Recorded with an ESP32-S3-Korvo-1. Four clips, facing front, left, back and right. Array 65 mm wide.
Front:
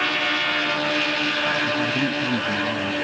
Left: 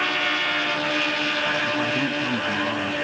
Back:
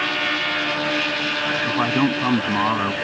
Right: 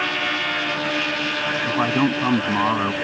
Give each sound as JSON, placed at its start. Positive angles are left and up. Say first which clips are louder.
{"t": 1.6, "sound": "a man speaking", "louder": "right 4 dB, back 3 dB", "azimuth_deg": -130}